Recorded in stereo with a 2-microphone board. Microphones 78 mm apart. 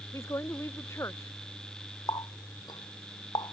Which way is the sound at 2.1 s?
65° left (ahead or behind).